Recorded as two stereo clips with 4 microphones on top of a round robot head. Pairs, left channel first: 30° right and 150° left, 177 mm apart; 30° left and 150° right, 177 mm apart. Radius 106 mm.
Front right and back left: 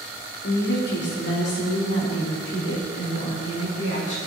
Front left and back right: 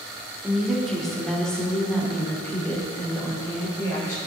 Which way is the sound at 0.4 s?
60° right.